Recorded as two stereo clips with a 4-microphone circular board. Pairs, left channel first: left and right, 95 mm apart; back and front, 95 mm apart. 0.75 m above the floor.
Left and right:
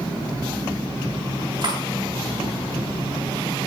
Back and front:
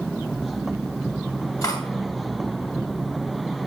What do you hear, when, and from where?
1.6 s cutlery clinking: 130° right, 2.5 m